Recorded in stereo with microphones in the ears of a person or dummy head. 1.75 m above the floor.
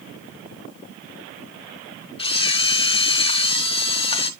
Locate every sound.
2.2 s a camera shutter: 25° left (ahead or behind), 0.5 m